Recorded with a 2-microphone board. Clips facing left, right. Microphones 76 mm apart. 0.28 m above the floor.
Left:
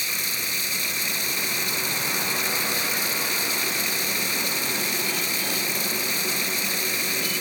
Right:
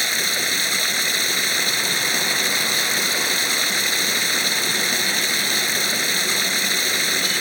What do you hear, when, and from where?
0.0 s running water: 65° right (ahead or behind)